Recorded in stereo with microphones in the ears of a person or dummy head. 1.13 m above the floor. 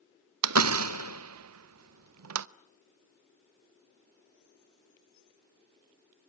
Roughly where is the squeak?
I don't hear a squeak.